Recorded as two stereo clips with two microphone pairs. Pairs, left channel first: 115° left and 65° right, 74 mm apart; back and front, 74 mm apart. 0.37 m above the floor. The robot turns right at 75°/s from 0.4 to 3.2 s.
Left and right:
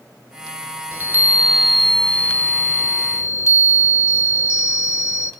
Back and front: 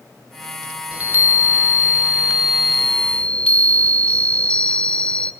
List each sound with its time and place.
0.9 s a chime: 50° right, 0.6 m; by 5.3 s 125° left, 0.6 m